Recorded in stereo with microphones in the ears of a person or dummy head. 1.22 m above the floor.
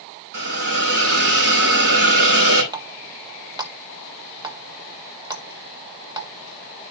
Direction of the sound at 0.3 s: 65° right (ahead or behind).